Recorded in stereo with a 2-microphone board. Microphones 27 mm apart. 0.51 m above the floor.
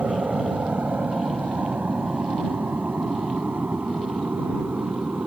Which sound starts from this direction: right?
An aircraft, at 0.0 s.